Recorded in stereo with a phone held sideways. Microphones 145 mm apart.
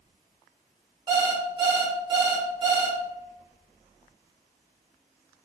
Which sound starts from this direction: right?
An alarm clock, at 1.1 s.